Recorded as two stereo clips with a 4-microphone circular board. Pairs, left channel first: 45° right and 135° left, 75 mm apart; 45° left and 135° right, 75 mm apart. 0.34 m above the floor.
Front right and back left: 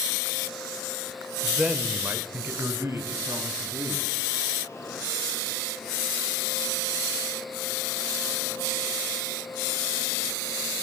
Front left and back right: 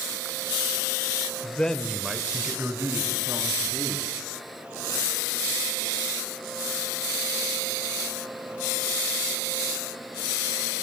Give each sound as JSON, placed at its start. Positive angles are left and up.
{"t": 1.4, "sound": "a man speaking", "azimuth_deg": 45, "distance_m": 0.9}